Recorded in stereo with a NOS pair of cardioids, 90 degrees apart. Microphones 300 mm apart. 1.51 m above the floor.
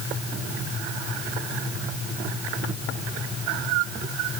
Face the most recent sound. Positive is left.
No sound to turn to.